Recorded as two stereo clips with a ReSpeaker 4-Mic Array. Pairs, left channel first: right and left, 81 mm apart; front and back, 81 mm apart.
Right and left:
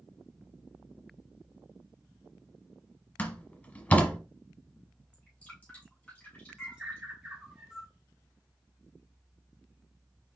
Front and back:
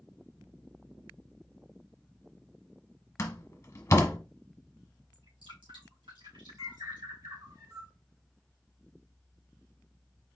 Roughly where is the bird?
Behind.